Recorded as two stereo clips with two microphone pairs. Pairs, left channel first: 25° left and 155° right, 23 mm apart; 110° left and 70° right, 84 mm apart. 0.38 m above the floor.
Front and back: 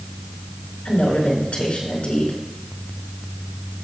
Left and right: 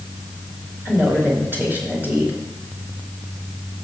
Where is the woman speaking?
10° right, 4.5 m.